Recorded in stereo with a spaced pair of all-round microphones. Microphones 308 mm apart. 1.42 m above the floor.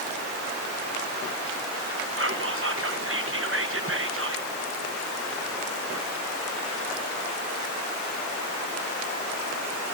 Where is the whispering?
45° right (ahead or behind), 1.0 m.